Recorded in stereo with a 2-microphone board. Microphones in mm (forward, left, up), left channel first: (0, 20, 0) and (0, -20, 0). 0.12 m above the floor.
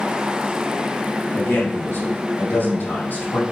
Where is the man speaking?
70° left (ahead or behind), 4 m; by 3.4 s 65° left (ahead or behind), 4.5 m.